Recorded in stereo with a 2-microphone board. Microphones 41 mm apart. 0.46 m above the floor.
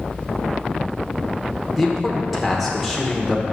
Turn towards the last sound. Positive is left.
turn(degrees=0)  # may be behind; listen again after turning